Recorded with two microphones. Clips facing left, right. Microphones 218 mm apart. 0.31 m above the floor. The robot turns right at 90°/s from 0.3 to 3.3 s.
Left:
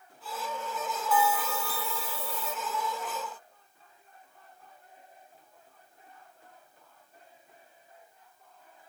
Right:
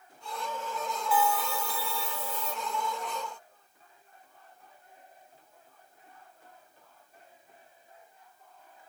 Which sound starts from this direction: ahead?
A bell, at 1.1 s.